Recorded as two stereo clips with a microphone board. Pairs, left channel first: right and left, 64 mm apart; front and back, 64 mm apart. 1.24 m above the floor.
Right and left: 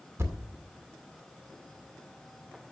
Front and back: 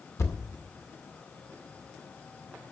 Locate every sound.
0.2 s a thud: 45° left, 1.8 m